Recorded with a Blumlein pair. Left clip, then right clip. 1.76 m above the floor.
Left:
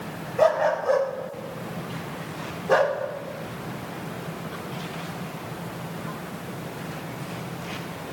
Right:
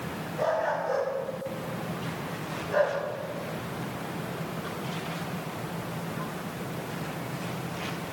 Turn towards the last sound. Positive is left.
turn(degrees=50)